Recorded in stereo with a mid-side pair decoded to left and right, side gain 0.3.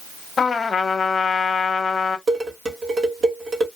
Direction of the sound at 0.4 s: 50° left.